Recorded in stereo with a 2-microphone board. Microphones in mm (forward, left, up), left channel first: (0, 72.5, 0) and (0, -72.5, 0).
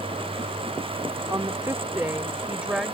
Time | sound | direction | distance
1.3 | a woman speaking | 25° right (ahead or behind) | ?